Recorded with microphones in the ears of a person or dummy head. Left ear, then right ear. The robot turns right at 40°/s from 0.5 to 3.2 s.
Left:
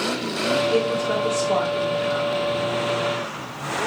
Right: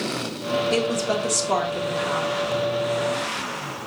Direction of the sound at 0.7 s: 100° right.